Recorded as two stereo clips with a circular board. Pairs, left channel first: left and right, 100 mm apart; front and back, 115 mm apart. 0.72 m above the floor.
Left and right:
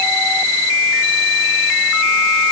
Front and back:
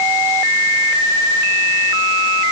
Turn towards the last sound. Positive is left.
No sound to turn to.